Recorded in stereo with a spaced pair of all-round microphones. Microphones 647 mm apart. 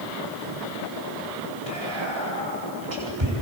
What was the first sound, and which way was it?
Whispering, 45° right (ahead or behind).